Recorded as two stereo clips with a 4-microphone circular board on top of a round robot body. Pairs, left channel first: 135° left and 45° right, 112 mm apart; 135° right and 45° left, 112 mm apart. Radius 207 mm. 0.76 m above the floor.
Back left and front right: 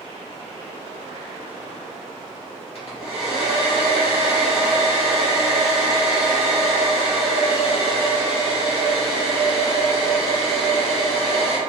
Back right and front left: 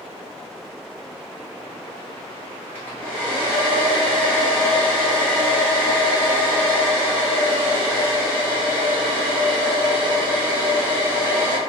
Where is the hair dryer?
150° left, 1.5 m.